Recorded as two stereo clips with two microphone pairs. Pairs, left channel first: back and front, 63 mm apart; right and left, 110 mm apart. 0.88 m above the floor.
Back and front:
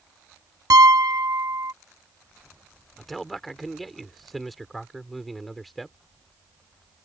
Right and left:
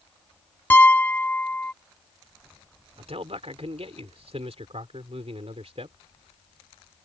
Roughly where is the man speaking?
Left.